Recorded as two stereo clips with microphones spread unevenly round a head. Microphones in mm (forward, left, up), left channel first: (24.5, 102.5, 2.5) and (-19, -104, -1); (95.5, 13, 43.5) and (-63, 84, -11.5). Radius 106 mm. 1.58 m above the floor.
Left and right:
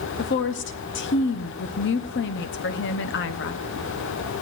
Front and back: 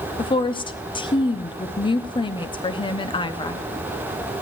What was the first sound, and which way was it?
A woman speaking, 40° left.